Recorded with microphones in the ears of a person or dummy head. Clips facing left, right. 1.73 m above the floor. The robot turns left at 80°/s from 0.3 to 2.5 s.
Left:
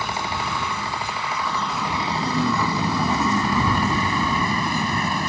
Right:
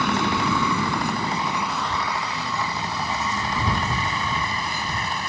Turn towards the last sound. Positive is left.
turn(degrees=55)  # may be behind; listen again after turning